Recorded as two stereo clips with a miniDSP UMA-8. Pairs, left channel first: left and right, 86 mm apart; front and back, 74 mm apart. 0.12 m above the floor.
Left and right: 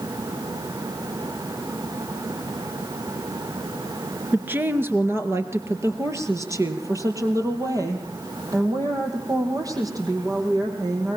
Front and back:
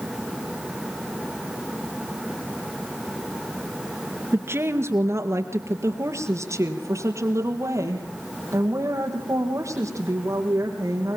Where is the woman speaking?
150° right, 1.8 m; by 11.2 s 130° right, 6 m.